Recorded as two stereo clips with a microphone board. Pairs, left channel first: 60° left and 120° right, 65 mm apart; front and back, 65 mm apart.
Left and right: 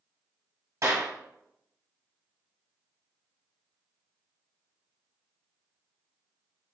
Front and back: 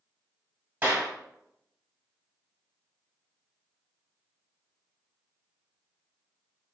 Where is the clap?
120° right, 1.7 m.